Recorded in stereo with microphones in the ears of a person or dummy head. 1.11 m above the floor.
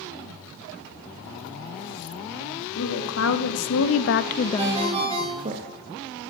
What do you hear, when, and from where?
2.8 s a woman speaking: 75° left (ahead or behind), 2 m; by 5.6 s 35° right (ahead or behind), 1.3 m
4.6 s a ringtone: 25° right (ahead or behind), 3 m